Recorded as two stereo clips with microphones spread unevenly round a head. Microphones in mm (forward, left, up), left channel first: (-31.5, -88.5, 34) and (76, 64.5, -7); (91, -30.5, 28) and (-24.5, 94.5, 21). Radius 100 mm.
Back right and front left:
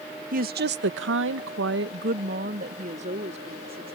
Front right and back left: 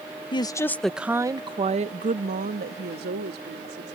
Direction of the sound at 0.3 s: 15° left.